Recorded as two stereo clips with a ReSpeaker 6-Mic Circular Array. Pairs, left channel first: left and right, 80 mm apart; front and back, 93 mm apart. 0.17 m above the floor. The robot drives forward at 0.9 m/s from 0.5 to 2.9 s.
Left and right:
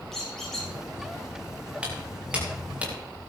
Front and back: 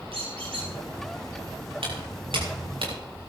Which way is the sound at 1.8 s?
165° right.